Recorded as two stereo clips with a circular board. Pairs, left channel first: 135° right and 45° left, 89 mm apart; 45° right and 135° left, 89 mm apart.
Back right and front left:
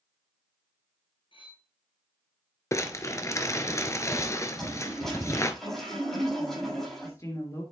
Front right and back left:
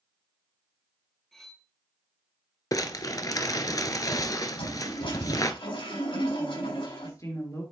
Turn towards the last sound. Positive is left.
turn(degrees=-90)